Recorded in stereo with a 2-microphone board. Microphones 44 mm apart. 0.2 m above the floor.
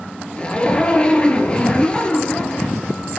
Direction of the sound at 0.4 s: 25° left (ahead or behind).